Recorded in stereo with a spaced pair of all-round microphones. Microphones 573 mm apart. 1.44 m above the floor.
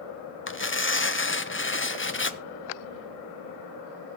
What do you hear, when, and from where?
0.5 s tearing paper: 25° left (ahead or behind), 0.5 m